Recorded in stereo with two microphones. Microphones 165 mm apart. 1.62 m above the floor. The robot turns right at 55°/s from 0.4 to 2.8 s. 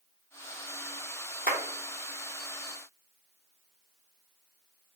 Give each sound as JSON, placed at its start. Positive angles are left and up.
{"t": 1.5, "sound": "a clap", "side_deg": -65, "distance_m": 1.1}